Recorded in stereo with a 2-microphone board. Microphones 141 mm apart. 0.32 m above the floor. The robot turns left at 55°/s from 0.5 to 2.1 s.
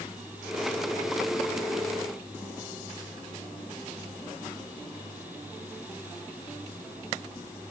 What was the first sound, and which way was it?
Only background noise.